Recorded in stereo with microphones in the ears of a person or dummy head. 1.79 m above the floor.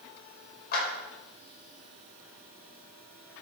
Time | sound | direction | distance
0.7 | a clap | 55° left (ahead or behind) | 5.5 m